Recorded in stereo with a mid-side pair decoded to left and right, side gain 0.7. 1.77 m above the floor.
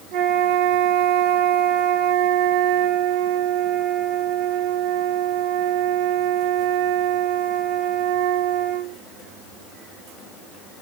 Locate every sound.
0.1 s a flute: 70° right, 1.8 m